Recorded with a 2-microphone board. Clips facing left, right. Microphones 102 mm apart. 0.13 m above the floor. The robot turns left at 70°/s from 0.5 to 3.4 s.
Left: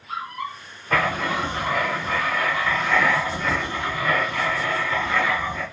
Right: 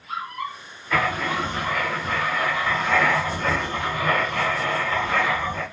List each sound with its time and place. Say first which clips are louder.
0.9 s writing: left 1 dB; 90° left, 1.4 m; by 5.6 s 85° right, 1.4 m